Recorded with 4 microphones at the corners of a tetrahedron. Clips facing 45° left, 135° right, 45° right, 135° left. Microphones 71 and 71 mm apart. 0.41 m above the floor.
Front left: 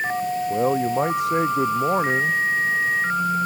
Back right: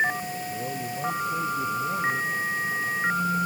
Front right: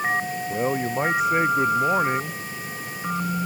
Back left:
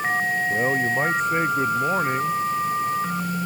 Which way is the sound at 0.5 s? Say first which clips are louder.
Front left 11 dB, front right 1 dB; 40° left.